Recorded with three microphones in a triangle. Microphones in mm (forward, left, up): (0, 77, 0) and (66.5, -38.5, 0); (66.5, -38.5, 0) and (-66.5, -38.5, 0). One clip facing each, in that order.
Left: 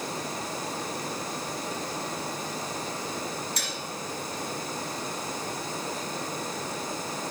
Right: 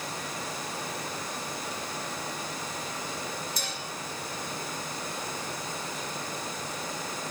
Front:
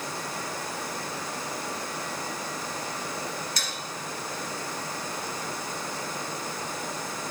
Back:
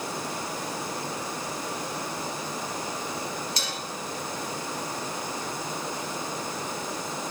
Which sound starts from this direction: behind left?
Dishes clattering, at 3.6 s.